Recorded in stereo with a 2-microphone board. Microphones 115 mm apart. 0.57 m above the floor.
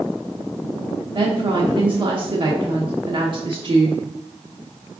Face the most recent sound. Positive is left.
turn(degrees=-45)  # may be behind; listen again after turning